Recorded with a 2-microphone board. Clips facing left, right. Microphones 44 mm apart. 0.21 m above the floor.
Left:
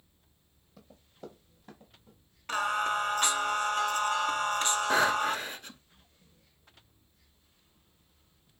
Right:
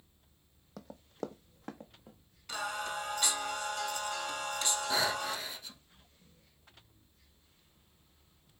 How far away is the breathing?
About 0.6 m.